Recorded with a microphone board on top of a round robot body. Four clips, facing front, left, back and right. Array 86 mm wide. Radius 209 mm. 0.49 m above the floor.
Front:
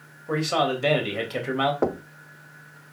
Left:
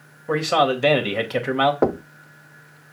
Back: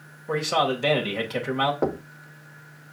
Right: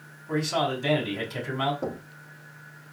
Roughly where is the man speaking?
Left.